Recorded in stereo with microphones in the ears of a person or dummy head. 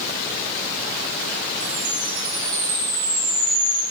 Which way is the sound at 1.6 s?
65° right (ahead or behind).